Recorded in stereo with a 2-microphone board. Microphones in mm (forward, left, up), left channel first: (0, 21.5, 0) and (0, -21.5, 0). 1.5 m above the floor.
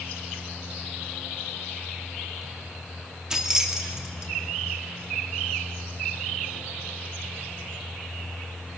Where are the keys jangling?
15° right (ahead or behind), 2.5 m.